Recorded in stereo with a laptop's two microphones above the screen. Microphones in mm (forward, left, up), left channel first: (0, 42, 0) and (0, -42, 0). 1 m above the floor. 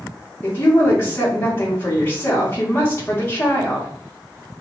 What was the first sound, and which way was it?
A woman speaking, 25° left (ahead or behind).